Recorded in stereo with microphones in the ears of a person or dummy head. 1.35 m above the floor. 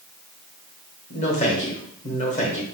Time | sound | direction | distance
1.1 | a man speaking | 35° left (ahead or behind) | 1.0 m